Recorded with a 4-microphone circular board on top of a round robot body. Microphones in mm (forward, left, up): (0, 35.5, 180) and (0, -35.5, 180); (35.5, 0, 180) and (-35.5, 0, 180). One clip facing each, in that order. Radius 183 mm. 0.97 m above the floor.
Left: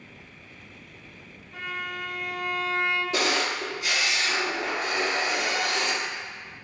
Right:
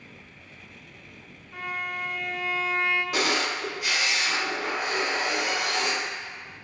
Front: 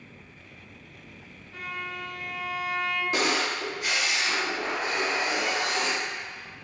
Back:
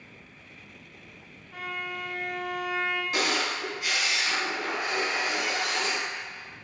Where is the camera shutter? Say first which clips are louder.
Even, front 2 dB; 70° right, 1.3 m.